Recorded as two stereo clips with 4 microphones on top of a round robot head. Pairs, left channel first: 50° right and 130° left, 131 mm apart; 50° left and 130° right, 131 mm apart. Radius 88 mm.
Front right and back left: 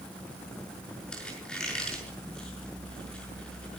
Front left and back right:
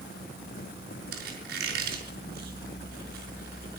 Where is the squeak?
135° right, 5.5 m.